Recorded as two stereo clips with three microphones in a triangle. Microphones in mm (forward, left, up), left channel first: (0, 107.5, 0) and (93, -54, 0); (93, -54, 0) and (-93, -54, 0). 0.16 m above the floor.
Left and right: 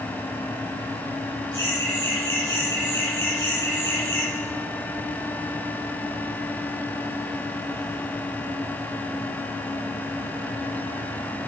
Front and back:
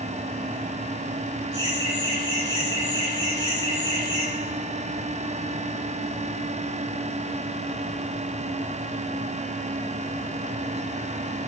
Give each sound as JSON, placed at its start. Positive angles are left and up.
{"t": 1.5, "sound": "laughter", "azimuth_deg": 55, "distance_m": 6.5}